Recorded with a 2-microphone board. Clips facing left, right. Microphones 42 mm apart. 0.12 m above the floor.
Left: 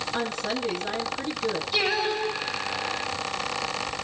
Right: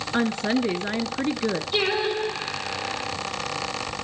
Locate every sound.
0.1 s a woman speaking: 35° right (ahead or behind), 1.5 m
1.7 s singing: 25° right (ahead or behind), 5.5 m